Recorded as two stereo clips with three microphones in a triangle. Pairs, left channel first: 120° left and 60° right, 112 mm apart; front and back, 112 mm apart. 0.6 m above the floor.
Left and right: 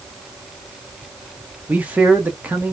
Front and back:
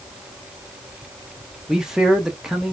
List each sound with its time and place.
1.7 s a man speaking: 105° right, 0.7 m